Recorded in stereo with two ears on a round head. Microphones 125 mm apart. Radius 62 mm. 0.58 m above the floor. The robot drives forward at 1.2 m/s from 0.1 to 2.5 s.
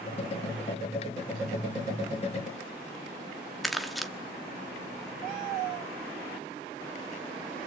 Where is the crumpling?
Centre (ahead or behind), 1.2 m.